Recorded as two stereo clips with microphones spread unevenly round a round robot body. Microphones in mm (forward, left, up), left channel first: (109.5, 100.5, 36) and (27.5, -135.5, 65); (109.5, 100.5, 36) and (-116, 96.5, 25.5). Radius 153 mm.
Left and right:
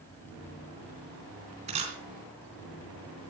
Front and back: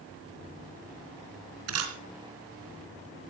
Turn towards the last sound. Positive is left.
turn(degrees=180)